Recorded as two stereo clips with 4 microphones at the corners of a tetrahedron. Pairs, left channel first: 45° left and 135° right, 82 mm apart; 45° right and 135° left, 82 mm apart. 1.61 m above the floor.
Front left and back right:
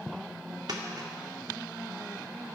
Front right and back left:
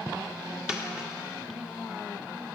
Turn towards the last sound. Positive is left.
turn(degrees=-145)